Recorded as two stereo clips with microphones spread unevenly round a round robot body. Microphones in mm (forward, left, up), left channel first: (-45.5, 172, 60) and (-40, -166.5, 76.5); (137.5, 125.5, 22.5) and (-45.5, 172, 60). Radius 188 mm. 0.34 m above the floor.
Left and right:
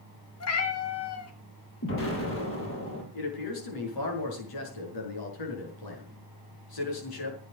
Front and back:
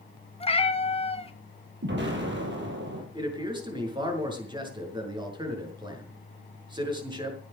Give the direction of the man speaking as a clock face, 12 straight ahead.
9 o'clock.